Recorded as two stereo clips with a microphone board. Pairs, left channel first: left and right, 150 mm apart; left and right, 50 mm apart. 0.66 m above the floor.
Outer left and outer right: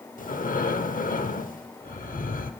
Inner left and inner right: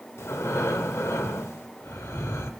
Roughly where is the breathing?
Left.